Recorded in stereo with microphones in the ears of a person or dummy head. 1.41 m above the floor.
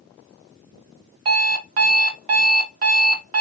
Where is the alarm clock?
25° right (ahead or behind), 0.7 m.